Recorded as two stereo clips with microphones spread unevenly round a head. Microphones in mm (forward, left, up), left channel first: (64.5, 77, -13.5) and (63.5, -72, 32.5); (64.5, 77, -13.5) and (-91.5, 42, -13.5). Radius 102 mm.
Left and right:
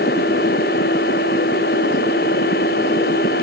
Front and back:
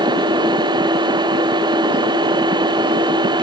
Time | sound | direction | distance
0.0 | a machine running | 130° left | ?